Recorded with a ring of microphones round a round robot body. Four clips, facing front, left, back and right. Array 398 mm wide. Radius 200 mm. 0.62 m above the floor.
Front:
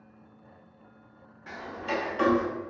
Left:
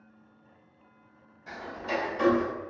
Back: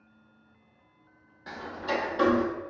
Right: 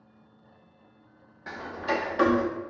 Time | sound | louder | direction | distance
1.5 | ticking | right 4 dB, back 1 dB | 100° right | 0.6 m